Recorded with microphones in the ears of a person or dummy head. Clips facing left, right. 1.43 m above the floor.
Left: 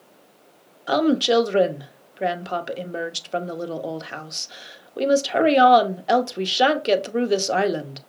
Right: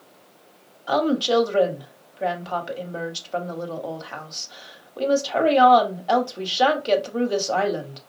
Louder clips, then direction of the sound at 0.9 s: Left 2 dB; 30° left (ahead or behind).